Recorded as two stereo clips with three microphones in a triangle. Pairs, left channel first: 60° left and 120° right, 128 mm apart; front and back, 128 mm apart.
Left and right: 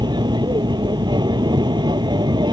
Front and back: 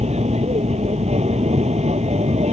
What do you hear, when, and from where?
0.0 s an aircraft: 170° right